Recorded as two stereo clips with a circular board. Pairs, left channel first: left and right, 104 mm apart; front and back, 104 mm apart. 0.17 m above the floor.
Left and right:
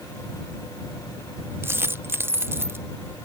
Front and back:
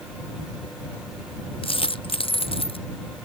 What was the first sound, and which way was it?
A dropped coin, 25° right.